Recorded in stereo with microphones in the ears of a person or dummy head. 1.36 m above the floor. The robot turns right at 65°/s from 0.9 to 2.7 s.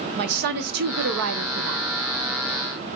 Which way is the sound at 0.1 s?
120° right.